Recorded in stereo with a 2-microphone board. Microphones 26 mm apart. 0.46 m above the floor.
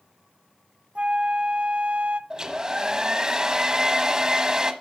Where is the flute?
50° right (ahead or behind), 0.5 m.